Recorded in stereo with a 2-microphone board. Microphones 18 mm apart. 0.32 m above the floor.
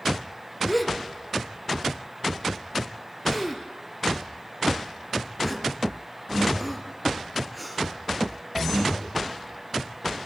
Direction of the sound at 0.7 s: 5° right (ahead or behind).